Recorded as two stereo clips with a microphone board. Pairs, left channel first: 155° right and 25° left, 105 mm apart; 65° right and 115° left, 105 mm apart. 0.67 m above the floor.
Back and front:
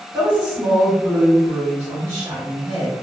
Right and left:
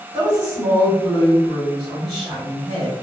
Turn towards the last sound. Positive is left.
turn(degrees=60)